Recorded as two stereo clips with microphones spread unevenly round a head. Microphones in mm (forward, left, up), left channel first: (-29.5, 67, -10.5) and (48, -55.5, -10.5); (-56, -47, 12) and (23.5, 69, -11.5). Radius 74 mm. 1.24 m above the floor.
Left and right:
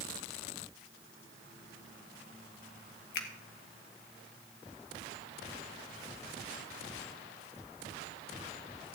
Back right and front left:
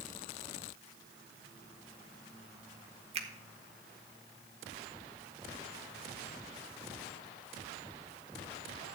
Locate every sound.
3.1 s a finger snap: 100° left, 1.7 m